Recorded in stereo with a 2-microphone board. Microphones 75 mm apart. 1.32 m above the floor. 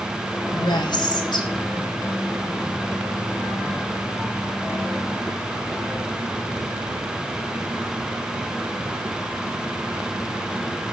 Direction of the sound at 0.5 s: 75° left (ahead or behind).